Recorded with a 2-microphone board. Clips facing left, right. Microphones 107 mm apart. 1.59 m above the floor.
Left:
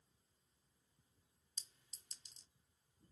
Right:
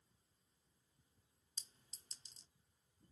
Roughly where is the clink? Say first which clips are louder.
Right 1 dB; right.